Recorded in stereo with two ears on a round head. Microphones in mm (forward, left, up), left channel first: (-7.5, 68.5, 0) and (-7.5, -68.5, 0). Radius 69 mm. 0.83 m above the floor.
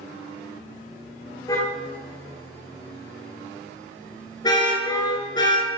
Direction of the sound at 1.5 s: 25° left (ahead or behind).